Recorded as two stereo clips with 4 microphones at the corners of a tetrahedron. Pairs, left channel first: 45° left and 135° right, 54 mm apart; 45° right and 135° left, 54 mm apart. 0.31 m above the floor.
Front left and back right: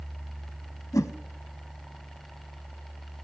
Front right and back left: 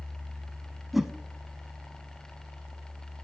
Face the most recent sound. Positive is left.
turn(degrees=50)